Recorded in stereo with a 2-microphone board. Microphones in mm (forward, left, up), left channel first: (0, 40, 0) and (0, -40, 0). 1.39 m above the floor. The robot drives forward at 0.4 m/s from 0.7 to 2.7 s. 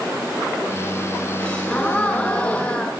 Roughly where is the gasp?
Centre.